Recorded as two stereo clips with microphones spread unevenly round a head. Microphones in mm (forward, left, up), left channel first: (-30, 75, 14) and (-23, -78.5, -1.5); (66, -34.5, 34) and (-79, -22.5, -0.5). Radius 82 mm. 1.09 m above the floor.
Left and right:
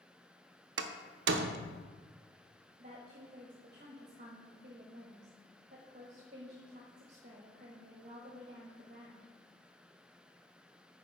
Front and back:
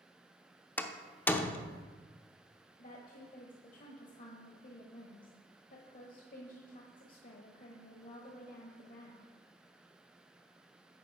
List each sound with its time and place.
0.8 s a door slam: 85° right, 0.6 m
2.8 s a woman speaking: 40° right, 1.3 m